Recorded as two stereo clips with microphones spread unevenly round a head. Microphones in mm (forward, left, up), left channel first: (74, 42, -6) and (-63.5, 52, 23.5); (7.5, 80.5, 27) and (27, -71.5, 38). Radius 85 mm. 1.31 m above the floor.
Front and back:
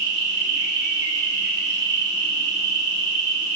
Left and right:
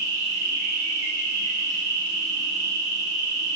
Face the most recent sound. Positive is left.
turn(degrees=-155)